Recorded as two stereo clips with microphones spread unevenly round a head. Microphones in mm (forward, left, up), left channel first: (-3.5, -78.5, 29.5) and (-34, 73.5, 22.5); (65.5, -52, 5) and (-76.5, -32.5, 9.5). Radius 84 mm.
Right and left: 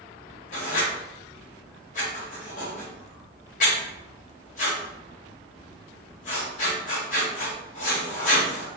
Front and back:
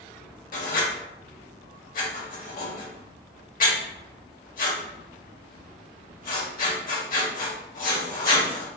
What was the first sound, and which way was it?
Writing, 35° right.